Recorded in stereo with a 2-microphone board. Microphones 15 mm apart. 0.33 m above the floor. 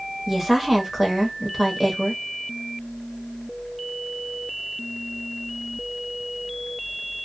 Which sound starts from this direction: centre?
A woman speaking, at 0.3 s.